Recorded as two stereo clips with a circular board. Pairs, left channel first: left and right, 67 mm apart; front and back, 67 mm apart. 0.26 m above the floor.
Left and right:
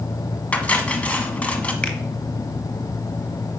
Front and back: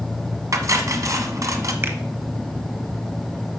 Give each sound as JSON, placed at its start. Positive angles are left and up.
{"t": 0.5, "sound": "cutlery clinking", "azimuth_deg": 155, "distance_m": 1.2}
{"t": 1.8, "sound": "a finger snap", "azimuth_deg": 155, "distance_m": 1.3}